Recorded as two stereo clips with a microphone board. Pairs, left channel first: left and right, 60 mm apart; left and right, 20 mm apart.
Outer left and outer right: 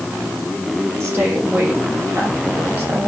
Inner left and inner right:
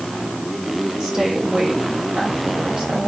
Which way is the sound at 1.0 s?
45° right (ahead or behind).